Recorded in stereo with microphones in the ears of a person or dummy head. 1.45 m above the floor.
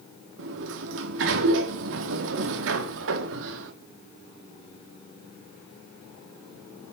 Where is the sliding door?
65° right (ahead or behind), 1.6 m.